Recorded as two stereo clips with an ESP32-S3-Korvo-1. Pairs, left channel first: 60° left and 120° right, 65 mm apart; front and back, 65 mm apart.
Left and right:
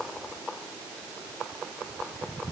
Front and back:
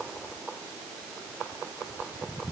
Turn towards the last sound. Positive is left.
No sound to turn to.